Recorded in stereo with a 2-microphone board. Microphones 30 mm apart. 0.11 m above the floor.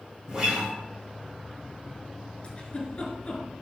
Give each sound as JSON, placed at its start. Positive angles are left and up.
{"t": 0.3, "sound": "a guitar", "side_deg": -25, "distance_m": 3.0}
{"t": 2.4, "sound": "a giggle", "side_deg": 35, "distance_m": 1.7}